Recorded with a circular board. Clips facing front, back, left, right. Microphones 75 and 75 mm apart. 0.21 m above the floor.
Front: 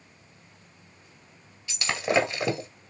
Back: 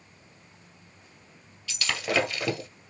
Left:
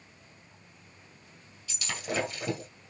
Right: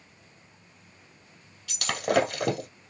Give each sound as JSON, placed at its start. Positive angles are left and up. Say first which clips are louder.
{"t": 1.7, "sound": "breaking glass", "louder": "front 3 dB, right 9 dB", "azimuth_deg": -65, "distance_m": 2.0}